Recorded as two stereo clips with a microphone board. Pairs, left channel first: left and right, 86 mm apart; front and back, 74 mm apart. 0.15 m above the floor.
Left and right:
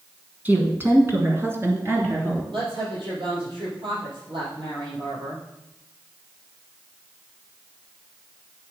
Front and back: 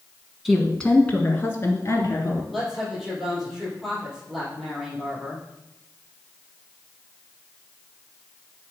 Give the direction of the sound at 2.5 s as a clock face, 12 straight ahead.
3 o'clock.